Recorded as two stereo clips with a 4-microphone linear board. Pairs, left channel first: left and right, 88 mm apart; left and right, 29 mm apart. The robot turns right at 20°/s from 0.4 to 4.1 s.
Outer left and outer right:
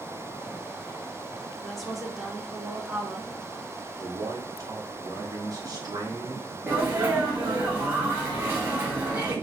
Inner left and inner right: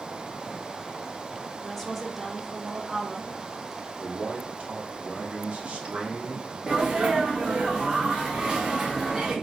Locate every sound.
1.6 s a woman speaking: 175° left, 0.7 m; by 3.3 s 150° right, 0.7 m
4.0 s a man speaking: 45° right (ahead or behind), 1.1 m; by 6.6 s 50° right (ahead or behind), 1.1 m
6.7 s a sneeze: 25° right (ahead or behind), 0.7 m